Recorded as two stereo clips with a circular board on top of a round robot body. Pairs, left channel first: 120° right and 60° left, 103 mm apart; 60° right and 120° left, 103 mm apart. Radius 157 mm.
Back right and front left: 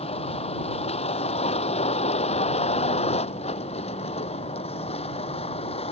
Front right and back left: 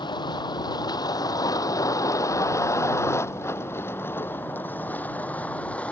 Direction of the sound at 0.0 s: 105° right.